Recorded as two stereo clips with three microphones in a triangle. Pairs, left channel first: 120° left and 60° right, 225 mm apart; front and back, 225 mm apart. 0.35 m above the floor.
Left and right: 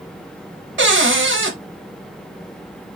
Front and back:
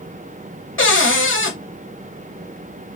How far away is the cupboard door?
About 0.7 m.